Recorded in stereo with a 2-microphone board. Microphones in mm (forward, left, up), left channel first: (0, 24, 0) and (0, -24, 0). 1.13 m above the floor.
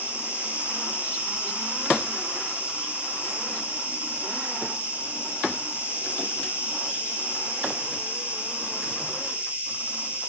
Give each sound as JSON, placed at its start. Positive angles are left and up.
{"t": 0.0, "sound": "an insect", "side_deg": -35, "distance_m": 7.5}